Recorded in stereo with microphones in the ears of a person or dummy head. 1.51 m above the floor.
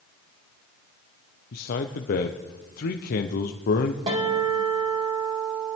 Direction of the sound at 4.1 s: 35° right (ahead or behind).